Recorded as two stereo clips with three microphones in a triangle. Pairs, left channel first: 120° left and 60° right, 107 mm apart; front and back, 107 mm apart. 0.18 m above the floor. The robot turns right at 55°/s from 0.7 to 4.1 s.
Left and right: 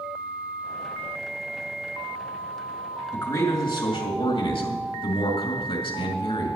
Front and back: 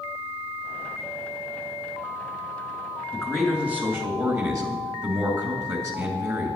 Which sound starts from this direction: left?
A man speaking, at 3.1 s.